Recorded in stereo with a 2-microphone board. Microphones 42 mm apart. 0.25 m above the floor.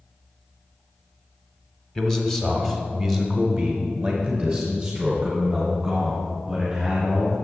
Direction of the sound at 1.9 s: 10° left (ahead or behind).